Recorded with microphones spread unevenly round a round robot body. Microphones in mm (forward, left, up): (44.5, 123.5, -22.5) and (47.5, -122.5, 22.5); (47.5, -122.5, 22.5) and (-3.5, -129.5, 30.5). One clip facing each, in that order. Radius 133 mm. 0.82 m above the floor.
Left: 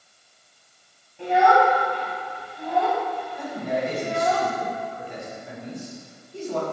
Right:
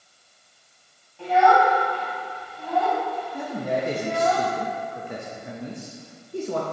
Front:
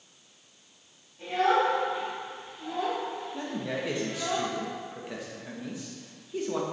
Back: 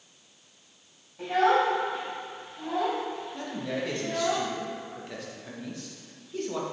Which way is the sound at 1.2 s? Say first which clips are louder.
Even, back 2 dB; 170° left.